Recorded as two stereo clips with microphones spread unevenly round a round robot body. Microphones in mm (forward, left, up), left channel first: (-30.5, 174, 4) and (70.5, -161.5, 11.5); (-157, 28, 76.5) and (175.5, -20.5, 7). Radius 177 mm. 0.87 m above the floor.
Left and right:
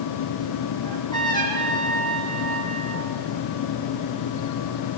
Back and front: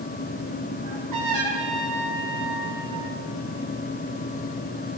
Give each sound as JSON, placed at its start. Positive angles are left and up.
{"t": 0.8, "sound": "a trumpet", "azimuth_deg": 30, "distance_m": 6.0}